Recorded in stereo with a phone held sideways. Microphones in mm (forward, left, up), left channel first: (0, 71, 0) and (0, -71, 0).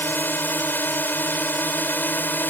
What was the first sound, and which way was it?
A drone, 15° left (ahead or behind).